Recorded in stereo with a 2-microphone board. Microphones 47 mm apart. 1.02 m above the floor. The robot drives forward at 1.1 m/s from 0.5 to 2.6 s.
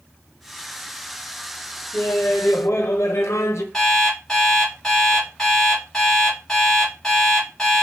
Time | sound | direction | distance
1.9 | laughter | 40° left (ahead or behind) | 1.0 m
3.7 | an alarm clock | 10° left (ahead or behind) | 3 m